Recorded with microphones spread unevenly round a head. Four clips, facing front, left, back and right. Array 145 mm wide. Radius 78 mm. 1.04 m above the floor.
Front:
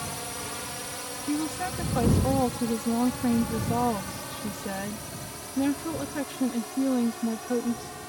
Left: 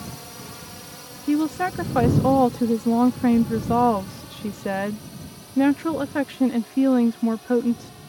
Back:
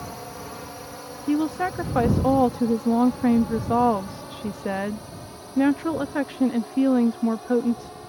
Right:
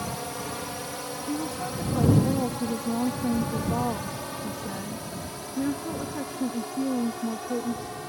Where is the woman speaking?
115° left.